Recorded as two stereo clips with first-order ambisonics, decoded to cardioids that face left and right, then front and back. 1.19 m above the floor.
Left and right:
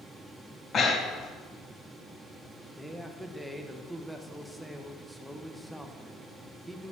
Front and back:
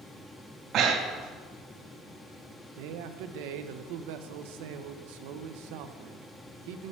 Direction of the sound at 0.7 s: 145° left.